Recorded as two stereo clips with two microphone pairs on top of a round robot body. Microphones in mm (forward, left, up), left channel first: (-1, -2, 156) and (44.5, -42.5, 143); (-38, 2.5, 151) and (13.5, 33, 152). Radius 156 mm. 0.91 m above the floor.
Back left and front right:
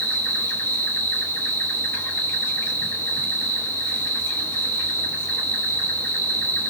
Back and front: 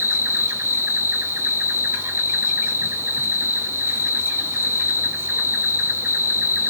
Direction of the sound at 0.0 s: 80° left.